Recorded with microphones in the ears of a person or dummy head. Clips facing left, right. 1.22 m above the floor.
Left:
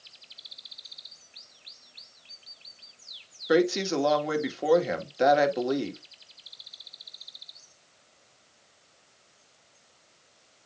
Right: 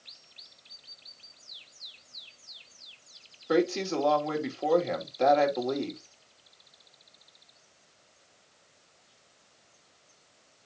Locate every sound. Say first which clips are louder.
3.5 s a woman speaking: left 3 dB; 15° left (ahead or behind), 2 m